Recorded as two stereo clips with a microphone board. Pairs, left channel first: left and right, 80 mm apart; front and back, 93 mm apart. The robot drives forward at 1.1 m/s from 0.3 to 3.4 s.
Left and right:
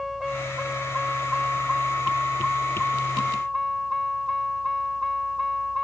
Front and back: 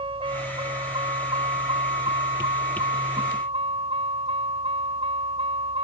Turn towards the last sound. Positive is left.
turn(degrees=180)